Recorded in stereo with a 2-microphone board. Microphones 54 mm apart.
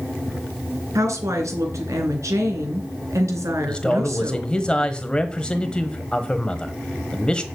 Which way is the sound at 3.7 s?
20° left (ahead or behind).